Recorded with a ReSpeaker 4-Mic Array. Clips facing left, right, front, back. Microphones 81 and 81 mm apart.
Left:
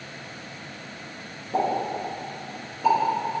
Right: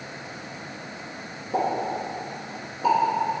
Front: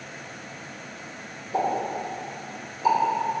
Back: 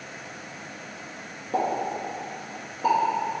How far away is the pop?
About 1.4 m.